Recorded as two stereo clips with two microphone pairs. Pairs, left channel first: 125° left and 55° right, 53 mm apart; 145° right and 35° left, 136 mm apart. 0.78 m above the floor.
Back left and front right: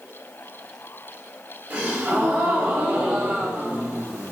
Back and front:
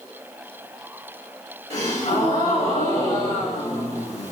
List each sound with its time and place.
1.7 s a gasp: 120° right, 2 m